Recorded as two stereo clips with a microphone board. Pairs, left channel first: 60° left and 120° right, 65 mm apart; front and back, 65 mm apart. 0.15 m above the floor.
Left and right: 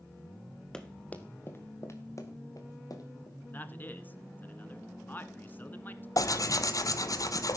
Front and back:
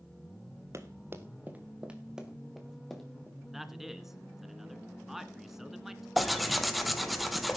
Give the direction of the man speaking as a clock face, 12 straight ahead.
9 o'clock.